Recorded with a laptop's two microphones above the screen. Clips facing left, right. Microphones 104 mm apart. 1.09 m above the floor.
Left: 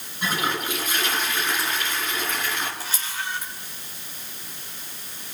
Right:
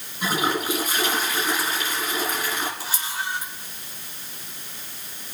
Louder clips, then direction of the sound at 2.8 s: Right 2 dB; 10° right (ahead or behind).